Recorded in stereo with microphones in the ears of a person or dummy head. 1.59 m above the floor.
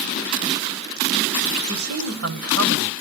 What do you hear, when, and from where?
1.6 s a man speaking: 85° right, 1.4 m